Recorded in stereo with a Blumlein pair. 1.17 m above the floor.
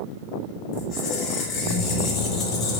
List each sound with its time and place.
0.7 s a squeak: 30° left, 1.3 m